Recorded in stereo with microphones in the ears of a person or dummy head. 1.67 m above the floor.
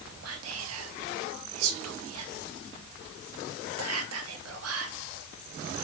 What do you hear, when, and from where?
0.2 s whispering: 85° right, 0.8 m